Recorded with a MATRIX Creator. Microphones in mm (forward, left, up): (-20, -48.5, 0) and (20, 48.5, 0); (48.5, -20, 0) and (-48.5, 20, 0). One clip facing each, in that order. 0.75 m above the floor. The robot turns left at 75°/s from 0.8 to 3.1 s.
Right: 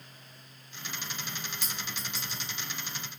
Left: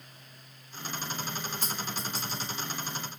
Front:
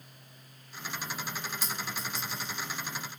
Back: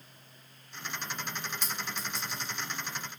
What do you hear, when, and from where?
1.6 s a clink: 125° right, 1.1 m; by 2.5 s 170° left, 1.1 m